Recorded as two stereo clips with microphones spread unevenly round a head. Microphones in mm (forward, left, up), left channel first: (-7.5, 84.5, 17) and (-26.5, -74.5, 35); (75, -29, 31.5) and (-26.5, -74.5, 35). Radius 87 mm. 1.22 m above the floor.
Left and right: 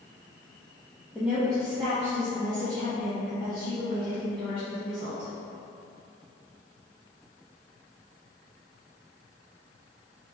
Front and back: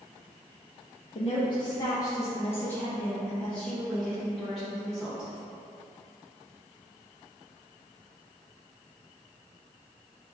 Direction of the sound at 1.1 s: 10° right.